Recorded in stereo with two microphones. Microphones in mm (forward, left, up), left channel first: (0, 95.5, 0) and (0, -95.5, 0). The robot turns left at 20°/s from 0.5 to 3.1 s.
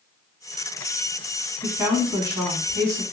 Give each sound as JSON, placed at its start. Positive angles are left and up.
{"t": 1.6, "sound": "a woman speaking", "side_deg": -10, "distance_m": 1.1}